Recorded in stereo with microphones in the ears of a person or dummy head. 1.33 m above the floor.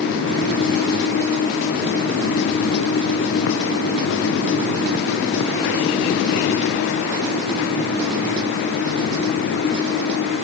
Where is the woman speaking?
No woman speaking in this recording.